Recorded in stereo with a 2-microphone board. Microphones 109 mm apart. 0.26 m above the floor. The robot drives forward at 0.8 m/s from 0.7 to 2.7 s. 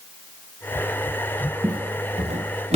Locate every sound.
1.6 s footsteps: 35° right (ahead or behind), 1.9 m; by 2.8 s 75° right (ahead or behind), 3 m